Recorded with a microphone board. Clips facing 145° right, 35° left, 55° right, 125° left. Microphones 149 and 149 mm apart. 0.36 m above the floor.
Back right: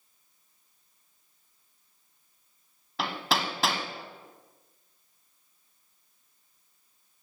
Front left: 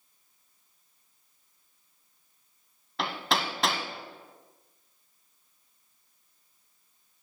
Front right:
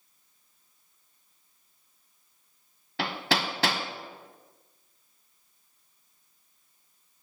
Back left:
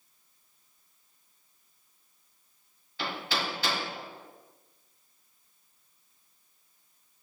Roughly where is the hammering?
Ahead right.